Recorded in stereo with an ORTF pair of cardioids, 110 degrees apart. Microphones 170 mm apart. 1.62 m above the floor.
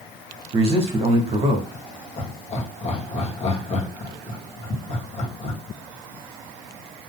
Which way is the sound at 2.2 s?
40° left.